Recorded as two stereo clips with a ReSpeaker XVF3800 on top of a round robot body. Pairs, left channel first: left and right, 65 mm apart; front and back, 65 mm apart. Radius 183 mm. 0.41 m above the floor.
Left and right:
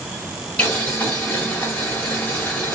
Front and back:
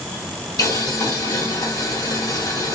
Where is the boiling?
20° left, 1.8 m.